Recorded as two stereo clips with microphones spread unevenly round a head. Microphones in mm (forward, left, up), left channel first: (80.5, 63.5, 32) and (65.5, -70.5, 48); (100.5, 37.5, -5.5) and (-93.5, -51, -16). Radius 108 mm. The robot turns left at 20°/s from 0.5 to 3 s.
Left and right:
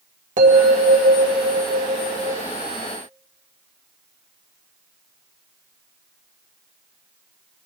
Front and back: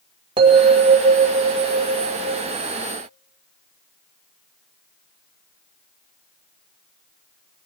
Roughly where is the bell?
Right.